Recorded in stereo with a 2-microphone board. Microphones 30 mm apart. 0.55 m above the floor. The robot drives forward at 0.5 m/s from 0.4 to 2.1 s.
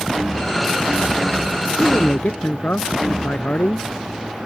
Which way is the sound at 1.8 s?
75° left (ahead or behind).